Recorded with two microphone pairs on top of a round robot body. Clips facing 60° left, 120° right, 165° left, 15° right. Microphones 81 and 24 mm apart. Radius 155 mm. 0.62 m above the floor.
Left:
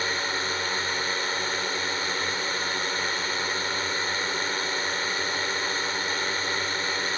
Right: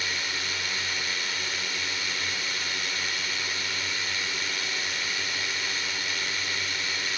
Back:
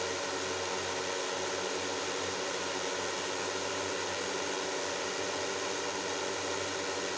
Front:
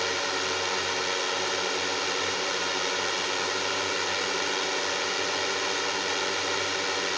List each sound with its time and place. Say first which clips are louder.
0.0 s a drone: left 5 dB, front 7 dB; 10° left